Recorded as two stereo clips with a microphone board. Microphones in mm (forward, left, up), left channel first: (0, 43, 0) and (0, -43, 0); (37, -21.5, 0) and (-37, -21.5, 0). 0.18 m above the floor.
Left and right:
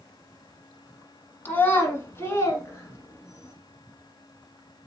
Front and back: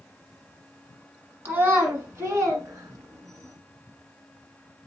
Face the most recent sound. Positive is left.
turn(degrees=145)